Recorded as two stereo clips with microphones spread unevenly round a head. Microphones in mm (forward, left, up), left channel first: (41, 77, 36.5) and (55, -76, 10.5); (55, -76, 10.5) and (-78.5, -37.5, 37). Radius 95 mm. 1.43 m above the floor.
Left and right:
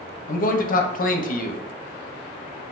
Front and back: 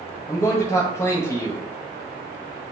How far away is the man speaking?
About 0.7 m.